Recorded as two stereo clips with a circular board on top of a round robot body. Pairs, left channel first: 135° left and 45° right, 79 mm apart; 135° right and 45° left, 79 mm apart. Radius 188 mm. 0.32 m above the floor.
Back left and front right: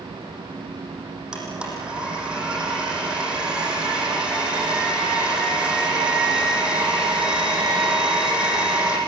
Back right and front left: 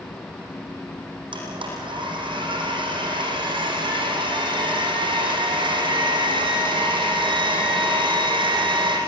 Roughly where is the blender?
Ahead left.